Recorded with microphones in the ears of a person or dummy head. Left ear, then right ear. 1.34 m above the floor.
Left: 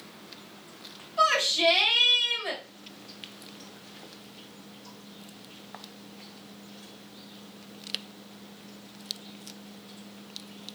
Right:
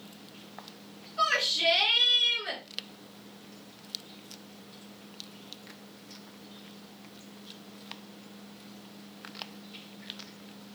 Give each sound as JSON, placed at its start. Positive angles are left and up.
{"t": 1.2, "sound": "a shout", "side_deg": 20, "distance_m": 1.8}